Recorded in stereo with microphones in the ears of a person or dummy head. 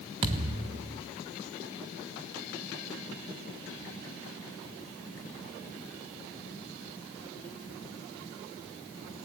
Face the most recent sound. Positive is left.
turn(degrees=-30)  # may be behind; listen again after turning